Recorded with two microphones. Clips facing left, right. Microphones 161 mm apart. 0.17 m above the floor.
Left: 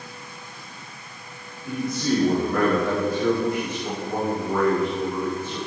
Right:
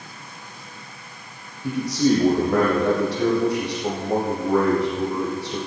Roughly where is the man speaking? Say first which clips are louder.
Right 5 dB; right.